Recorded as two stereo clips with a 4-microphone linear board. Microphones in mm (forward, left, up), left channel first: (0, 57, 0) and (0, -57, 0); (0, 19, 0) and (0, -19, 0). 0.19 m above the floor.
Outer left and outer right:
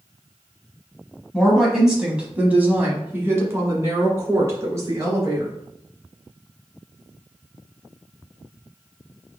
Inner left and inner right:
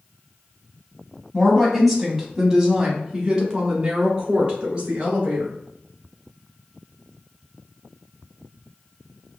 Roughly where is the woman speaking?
Centre.